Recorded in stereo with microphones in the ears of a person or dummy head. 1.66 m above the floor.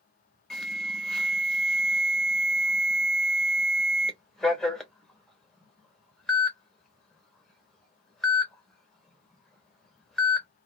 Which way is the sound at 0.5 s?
Centre (ahead or behind).